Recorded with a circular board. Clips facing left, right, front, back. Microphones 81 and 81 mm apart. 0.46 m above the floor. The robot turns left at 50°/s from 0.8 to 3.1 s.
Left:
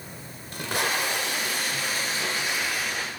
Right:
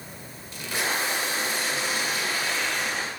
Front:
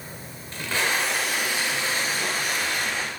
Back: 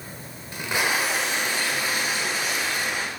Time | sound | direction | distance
0.5 | tape being pulled | 110° left | 1.1 m